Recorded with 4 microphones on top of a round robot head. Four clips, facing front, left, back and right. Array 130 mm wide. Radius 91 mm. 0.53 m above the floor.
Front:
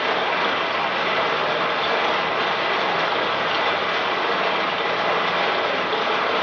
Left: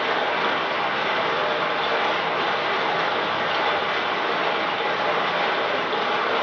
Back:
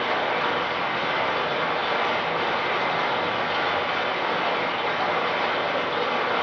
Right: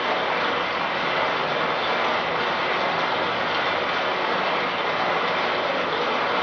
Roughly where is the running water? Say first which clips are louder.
Left 1 dB, front 2 dB; ahead.